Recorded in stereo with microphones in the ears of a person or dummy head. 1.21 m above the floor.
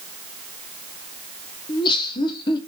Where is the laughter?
25° left (ahead or behind), 1.1 m.